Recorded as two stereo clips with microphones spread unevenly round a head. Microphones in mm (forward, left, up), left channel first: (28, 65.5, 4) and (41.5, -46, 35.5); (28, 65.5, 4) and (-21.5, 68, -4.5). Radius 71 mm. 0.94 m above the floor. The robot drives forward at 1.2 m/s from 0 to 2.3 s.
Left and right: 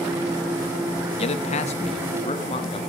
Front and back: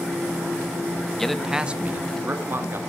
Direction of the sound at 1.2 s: 80° left.